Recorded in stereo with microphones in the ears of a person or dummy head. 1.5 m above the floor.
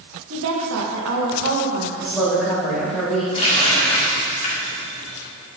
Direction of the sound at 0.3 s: 75° right (ahead or behind).